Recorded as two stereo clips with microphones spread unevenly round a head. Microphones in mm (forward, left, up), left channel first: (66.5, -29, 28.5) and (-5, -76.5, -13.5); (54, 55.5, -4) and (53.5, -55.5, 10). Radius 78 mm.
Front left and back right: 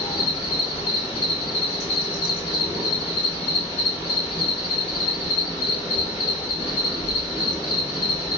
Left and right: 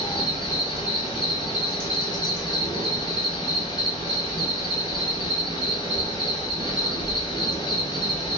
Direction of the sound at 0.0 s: 70° left.